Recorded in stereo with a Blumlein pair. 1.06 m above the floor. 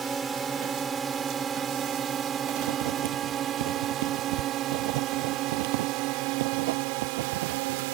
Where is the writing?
55° right.